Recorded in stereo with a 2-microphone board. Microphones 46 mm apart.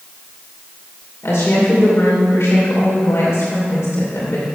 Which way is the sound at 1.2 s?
70° left (ahead or behind).